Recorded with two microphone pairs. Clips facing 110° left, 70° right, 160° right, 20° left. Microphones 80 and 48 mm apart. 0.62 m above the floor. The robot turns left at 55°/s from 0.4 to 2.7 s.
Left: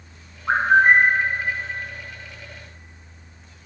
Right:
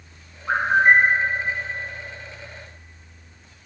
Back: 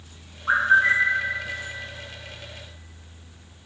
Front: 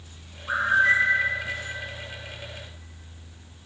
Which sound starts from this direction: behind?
A bird, at 0.5 s.